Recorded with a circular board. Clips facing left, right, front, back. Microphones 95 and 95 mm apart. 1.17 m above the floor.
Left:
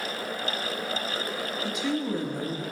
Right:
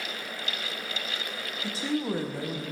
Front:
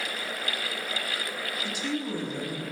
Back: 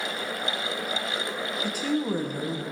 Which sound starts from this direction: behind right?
A woman speaking, at 1.6 s.